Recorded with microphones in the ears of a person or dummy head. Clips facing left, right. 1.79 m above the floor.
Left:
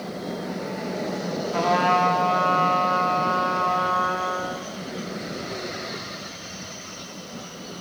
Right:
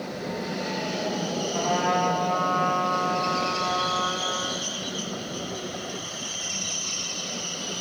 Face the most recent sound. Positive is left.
turn(degrees=60)  # may be behind; listen again after turning